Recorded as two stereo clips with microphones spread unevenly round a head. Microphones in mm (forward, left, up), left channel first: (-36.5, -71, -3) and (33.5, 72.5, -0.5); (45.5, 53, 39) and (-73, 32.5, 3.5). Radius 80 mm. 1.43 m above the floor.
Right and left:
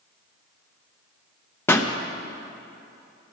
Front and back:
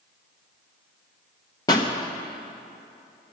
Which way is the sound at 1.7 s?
40° right.